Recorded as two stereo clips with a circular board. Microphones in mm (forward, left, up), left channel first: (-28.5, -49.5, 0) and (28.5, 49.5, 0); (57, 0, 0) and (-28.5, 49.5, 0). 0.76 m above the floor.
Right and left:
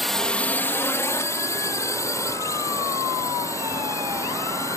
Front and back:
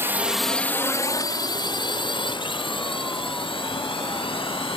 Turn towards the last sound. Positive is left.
turn(degrees=-55)